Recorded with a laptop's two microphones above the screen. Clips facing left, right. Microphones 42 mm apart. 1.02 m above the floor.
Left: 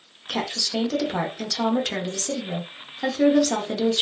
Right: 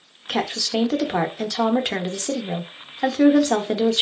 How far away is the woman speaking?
About 0.5 m.